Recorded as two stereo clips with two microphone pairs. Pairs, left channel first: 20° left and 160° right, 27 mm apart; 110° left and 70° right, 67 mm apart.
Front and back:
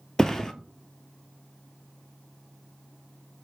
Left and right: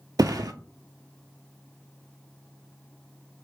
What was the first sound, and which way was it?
A thud, 50° right.